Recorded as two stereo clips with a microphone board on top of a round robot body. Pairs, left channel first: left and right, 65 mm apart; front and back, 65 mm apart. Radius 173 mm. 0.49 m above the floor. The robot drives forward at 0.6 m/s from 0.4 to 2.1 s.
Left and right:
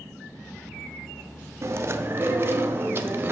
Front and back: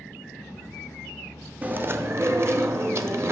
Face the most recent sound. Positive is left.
turn(degrees=-140)